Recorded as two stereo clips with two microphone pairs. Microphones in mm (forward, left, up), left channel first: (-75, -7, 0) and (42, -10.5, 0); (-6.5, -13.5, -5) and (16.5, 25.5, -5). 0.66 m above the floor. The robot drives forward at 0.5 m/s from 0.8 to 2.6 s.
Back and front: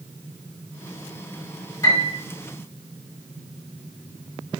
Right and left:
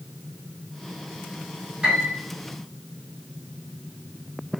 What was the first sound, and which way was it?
A piano, 120° left.